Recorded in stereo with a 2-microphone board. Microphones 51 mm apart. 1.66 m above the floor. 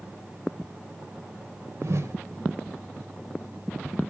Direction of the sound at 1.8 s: 65° right (ahead or behind).